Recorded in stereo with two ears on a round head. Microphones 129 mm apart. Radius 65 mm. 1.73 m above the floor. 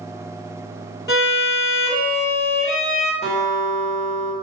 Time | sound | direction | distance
1.1 | a violin | 30° left (ahead or behind) | 2.5 m
3.2 | a guitar | 15° left (ahead or behind) | 1.6 m